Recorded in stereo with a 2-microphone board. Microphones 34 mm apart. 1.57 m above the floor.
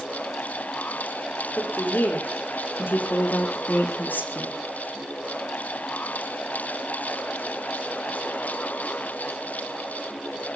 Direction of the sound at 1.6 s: 90° left.